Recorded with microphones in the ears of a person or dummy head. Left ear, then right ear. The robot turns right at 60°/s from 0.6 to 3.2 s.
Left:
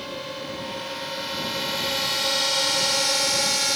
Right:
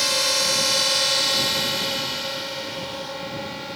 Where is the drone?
70° right (ahead or behind); by 3.8 s 75° left (ahead or behind).